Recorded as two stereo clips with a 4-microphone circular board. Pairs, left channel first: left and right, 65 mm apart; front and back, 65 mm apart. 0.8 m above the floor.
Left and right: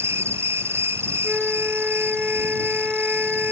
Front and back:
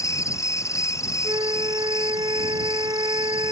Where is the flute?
170° right.